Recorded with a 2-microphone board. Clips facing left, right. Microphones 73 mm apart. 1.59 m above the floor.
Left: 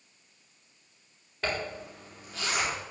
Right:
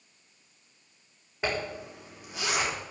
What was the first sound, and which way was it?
A zipper, 15° right (ahead or behind).